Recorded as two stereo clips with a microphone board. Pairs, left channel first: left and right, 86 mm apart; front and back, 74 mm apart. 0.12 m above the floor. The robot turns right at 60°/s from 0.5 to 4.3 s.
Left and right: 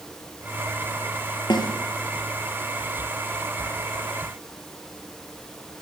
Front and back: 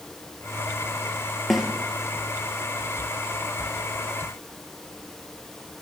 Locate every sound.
1.5 s a snare drum: 90° left, 3 m; by 1.7 s 100° left, 3 m